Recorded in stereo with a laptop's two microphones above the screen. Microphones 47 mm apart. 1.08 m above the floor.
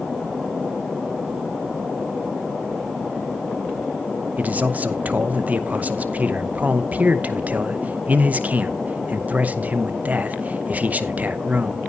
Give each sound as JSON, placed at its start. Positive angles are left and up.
{"t": 4.4, "sound": "a man speaking", "side_deg": -35, "distance_m": 0.7}